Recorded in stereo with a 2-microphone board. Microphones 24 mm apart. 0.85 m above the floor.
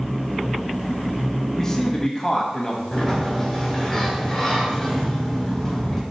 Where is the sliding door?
15° left (ahead or behind), 2.5 m.